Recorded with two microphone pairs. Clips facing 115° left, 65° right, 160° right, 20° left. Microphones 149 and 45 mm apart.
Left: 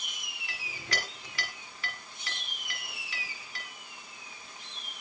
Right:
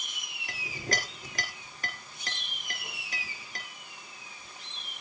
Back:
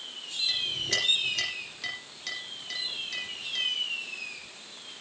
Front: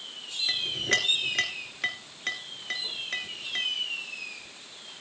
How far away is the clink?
About 2.5 m.